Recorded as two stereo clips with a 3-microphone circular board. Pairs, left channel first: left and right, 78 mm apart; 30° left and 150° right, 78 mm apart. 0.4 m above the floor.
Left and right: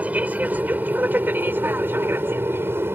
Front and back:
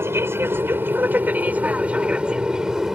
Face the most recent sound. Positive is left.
turn(degrees=-70)